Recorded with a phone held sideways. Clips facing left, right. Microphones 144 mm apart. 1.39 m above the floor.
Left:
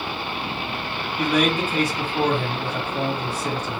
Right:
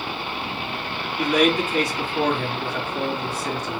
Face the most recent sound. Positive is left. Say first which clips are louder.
# right 2 dB
turn(degrees=30)  # may be behind; listen again after turning